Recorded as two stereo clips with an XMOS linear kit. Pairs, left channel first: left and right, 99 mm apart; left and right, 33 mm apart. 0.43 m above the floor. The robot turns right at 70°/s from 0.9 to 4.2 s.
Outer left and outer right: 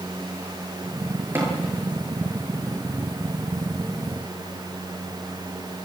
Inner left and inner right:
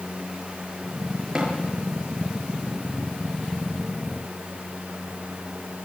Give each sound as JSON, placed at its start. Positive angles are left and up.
{"t": 1.4, "sound": "tapping", "side_deg": -20, "distance_m": 8.0}